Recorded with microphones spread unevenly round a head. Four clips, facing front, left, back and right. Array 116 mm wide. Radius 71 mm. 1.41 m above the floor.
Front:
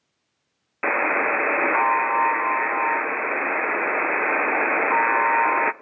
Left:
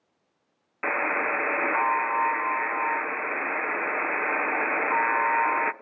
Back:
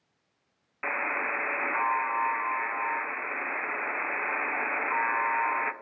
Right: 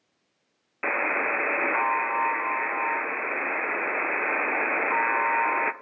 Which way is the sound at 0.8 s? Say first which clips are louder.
Even, front 9 dB; 10° right.